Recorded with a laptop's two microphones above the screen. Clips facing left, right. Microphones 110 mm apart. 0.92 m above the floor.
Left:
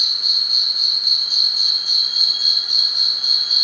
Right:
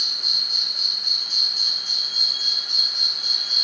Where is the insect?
10° left (ahead or behind), 0.9 m.